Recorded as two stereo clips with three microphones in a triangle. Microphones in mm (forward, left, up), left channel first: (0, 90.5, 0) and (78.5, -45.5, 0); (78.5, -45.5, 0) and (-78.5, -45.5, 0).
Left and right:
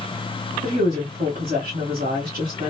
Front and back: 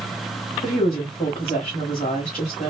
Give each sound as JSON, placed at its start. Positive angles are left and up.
{"t": 0.6, "sound": "a woman speaking", "azimuth_deg": -35, "distance_m": 1.5}